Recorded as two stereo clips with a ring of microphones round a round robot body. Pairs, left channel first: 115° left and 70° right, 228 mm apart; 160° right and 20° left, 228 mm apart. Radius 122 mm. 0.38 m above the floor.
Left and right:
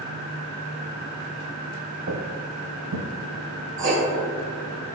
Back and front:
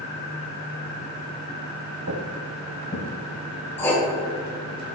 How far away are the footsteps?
About 0.8 m.